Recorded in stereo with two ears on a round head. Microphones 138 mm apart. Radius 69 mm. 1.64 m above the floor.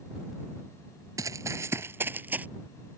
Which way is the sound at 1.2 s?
20° right (ahead or behind).